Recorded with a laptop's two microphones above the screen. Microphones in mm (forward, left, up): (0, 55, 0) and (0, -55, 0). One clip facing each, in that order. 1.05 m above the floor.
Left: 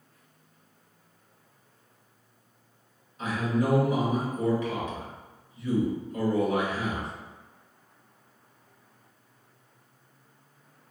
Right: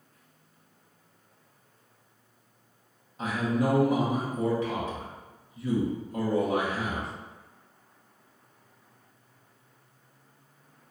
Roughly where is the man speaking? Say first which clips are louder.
Even; right.